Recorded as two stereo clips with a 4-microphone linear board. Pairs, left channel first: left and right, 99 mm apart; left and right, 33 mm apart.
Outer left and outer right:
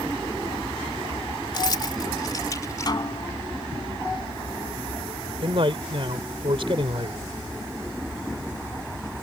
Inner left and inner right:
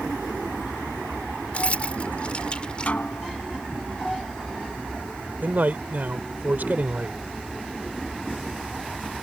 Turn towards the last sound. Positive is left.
turn(degrees=-60)  # may be behind; listen again after turning